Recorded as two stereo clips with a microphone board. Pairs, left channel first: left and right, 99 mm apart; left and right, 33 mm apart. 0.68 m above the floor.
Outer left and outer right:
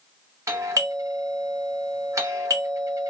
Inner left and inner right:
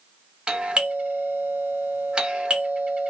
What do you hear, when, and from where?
0.5 s a doorbell: 30° right (ahead or behind), 1.1 m